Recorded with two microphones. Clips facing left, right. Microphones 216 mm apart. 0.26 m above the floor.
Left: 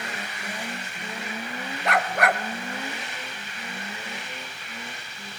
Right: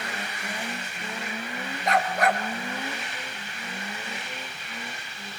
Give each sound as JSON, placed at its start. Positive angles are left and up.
{"t": 1.9, "sound": "a dog barking", "side_deg": 70, "distance_m": 1.7}